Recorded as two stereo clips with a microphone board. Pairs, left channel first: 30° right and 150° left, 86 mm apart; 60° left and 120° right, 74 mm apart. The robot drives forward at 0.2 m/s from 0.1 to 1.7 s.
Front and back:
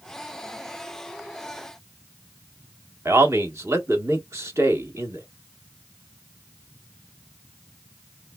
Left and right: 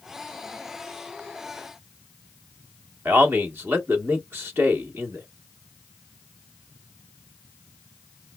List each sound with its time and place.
3.0 s a man speaking: 170° right, 1.0 m